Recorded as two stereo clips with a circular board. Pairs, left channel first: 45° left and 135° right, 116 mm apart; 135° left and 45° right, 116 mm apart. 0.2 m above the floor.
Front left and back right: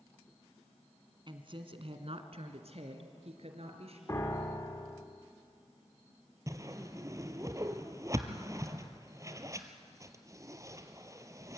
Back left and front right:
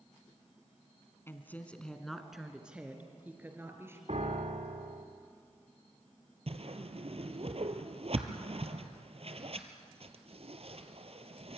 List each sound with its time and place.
1.3 s a woman speaking: 160° right, 1.8 m; by 4.0 s 110° right, 3.5 m
4.1 s a piano: 20° right, 2.5 m
6.5 s a whoosh: 75° right, 1.4 m